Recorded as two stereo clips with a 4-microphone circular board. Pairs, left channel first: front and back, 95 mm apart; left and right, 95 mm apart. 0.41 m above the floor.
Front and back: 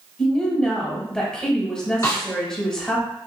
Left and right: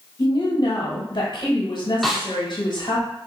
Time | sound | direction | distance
0.2 | a woman speaking | 80° left | 1.3 m
2.0 | a snare drum | straight ahead | 1.0 m